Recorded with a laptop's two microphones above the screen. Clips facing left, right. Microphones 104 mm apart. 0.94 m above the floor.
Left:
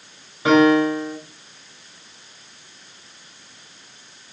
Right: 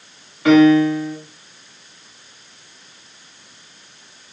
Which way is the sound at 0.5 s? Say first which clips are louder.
Right 4 dB; 25° left (ahead or behind).